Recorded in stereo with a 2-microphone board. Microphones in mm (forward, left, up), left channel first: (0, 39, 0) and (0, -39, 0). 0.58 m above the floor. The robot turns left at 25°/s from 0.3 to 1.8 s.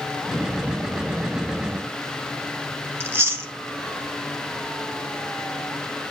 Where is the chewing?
30° right (ahead or behind), 0.7 m.